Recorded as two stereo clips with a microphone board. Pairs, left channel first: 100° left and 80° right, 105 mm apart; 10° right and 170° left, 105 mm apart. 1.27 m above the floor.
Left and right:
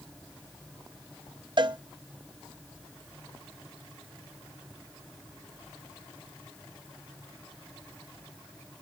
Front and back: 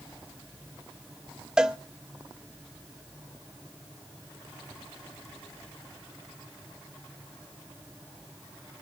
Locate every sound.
1.6 s a cowbell: 105° right, 0.7 m